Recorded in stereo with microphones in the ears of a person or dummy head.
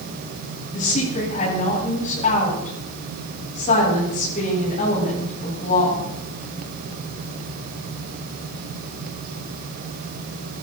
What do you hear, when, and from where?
0.7 s a woman speaking: 40° left (ahead or behind), 9 m